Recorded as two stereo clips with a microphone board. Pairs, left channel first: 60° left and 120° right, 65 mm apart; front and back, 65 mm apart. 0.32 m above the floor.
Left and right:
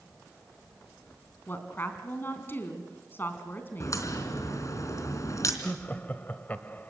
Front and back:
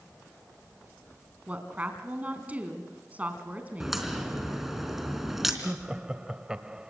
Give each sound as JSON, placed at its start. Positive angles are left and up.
{"t": 1.5, "sound": "a woman speaking", "azimuth_deg": 115, "distance_m": 3.5}
{"t": 3.8, "sound": "a crack", "azimuth_deg": 95, "distance_m": 3.5}
{"t": 5.6, "sound": "laughter", "azimuth_deg": 110, "distance_m": 1.1}